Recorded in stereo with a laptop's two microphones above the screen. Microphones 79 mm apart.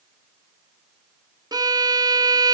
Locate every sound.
1.5 s a violin: 55° right (ahead or behind), 0.5 m